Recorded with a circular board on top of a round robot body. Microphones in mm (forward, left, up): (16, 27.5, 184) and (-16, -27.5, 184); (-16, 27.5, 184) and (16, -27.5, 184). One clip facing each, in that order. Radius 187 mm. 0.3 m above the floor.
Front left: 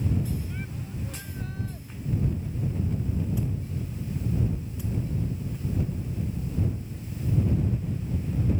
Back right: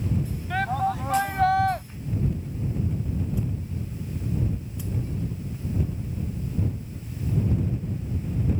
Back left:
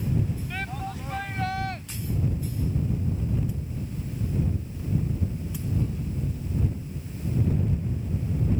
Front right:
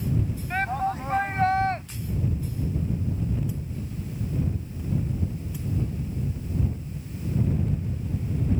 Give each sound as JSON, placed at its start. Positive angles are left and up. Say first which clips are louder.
{"t": 0.5, "sound": "a shout", "louder": "back right 13 dB, front right 8 dB", "azimuth_deg": -110}